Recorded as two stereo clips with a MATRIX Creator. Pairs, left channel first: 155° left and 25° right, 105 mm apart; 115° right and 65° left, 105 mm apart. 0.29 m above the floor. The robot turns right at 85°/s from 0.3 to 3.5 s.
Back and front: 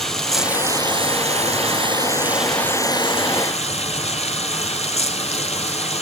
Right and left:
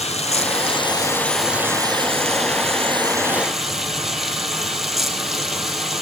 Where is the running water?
115° right, 1.8 m; by 6.0 s 155° left, 1.8 m.